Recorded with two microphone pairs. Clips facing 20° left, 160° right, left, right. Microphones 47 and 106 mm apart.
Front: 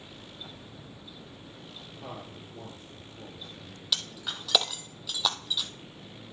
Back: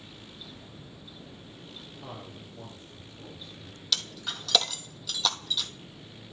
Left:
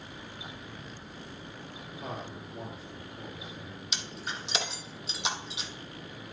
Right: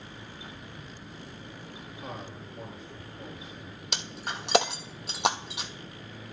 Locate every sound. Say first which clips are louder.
2.0 s a man speaking: front 2 dB, left 2 dB; 40° left, 3 m
3.9 s breaking glass: even, right 3 dB; 65° right, 0.6 m